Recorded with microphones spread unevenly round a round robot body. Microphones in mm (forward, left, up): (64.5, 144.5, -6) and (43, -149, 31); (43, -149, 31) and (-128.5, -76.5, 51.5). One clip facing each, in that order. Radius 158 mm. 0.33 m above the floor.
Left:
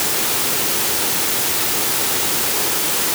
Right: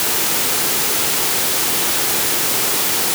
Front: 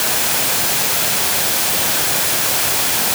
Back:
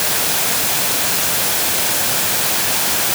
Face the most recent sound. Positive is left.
No sound to turn to.